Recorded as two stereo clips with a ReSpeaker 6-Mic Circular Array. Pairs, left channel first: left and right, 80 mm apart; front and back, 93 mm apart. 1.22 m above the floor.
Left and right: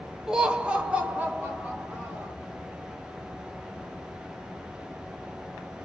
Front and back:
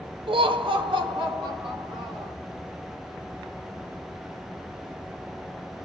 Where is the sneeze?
No sneeze in this recording.